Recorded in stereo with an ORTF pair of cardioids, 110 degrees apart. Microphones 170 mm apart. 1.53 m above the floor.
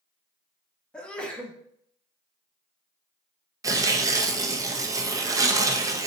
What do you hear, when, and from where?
0.9 s a sneeze: 5° left, 1.3 m
3.6 s tearing paper: 20° right, 0.7 m